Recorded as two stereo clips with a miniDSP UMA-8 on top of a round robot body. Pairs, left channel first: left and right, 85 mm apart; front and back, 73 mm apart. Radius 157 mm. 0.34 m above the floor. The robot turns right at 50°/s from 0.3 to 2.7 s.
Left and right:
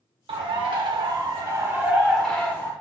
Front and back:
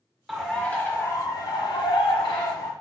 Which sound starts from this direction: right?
A bird, at 0.3 s.